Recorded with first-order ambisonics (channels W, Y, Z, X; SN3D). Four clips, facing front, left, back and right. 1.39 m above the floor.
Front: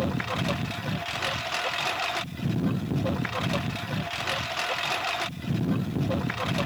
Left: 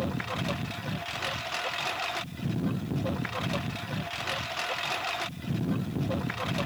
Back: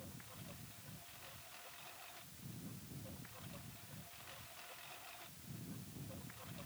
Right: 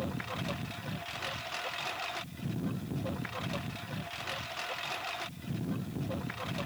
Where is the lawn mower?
15° left; by 6.7 s 20° left.